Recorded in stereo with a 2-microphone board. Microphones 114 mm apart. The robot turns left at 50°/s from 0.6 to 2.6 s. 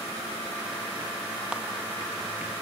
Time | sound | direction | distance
1.5 | a clap | 10° right (ahead or behind) | 1.9 m